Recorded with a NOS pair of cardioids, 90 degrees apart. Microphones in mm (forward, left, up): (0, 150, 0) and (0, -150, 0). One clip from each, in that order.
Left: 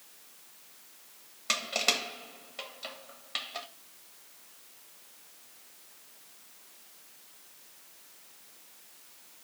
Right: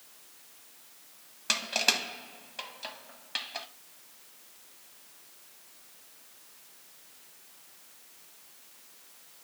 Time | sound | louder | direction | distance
1.5 | crushing | right 1 dB | 5° right | 1.6 m